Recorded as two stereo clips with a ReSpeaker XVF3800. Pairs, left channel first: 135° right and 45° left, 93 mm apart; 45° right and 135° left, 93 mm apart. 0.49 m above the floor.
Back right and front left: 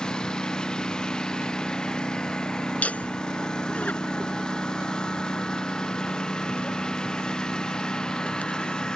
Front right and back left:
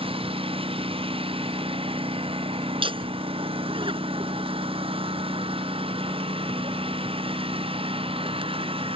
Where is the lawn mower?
145° left.